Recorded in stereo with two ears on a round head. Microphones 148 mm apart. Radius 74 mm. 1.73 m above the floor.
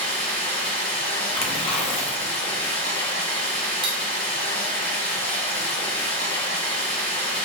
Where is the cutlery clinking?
30° right (ahead or behind), 0.9 m.